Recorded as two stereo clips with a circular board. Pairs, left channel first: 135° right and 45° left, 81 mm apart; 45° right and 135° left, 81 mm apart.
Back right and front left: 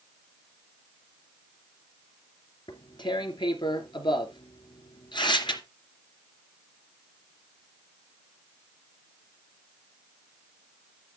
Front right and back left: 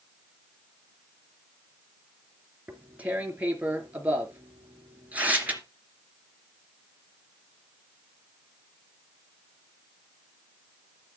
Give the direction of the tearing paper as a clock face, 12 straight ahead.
5 o'clock.